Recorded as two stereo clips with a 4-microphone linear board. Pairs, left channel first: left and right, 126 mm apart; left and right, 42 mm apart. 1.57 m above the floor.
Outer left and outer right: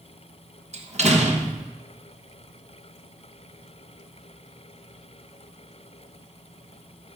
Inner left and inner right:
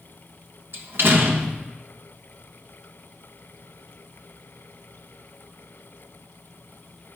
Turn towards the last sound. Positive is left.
turn(degrees=-60)  # may be behind; listen again after turning